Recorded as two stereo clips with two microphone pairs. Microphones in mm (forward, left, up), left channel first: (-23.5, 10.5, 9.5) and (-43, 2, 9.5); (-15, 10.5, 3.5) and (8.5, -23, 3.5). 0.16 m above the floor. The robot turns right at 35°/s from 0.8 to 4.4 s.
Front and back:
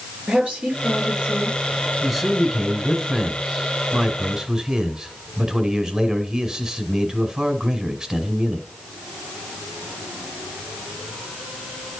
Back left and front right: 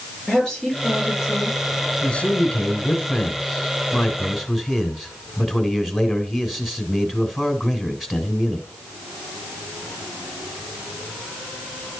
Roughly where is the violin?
No violin in this recording.